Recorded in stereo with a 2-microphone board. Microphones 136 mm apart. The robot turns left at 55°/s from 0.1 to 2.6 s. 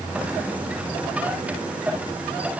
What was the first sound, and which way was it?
Only background noise.